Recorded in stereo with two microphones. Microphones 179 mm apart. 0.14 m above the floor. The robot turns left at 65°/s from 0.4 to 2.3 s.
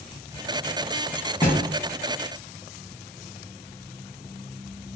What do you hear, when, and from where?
1.4 s a thud: 20° left (ahead or behind), 2 m; by 1.6 s 35° left (ahead or behind), 2 m